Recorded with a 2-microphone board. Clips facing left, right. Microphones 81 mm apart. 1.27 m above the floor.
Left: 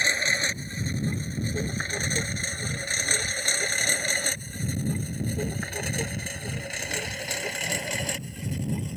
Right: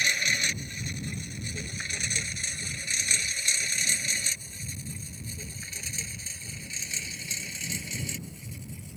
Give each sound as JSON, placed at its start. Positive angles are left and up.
{"t": 0.0, "sound": "a lawn mower", "side_deg": 35}